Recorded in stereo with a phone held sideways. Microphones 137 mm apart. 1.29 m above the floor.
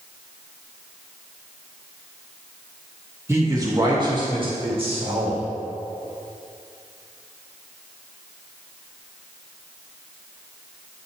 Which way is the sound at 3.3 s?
20° right (ahead or behind).